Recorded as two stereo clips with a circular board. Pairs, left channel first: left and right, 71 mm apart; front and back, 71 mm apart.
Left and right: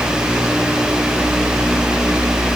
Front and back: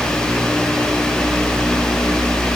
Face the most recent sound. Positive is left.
No sound to turn to.